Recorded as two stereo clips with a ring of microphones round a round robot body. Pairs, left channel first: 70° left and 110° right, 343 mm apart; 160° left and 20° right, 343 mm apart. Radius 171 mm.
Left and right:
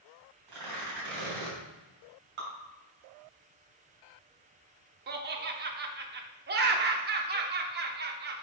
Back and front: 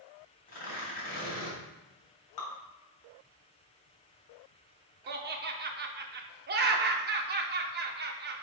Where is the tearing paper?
135° right, 3 m.